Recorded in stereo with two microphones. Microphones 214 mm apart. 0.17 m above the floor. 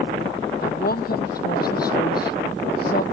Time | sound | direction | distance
0.6 | a woman speaking | 45° left (ahead or behind) | ?